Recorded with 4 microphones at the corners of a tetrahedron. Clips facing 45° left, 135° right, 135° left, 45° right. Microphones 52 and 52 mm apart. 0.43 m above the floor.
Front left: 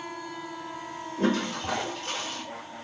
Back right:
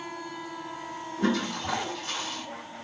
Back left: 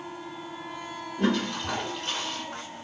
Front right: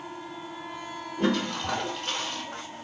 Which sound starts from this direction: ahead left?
A toilet flushing, at 1.2 s.